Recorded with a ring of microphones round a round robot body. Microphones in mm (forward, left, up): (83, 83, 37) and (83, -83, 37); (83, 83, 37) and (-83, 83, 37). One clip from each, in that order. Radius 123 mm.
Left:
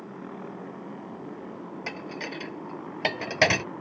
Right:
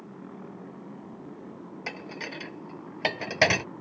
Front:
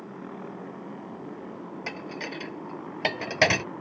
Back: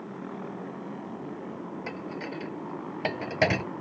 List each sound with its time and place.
0.0 s a motorcycle: 65° left
1.9 s dishes clattering: 15° right